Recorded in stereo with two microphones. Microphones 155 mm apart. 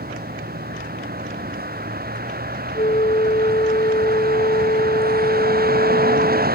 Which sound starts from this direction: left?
A flute, at 2.8 s.